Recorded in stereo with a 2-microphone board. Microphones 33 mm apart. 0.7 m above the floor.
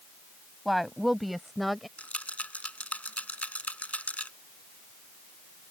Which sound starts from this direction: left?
A rattle, at 2.0 s.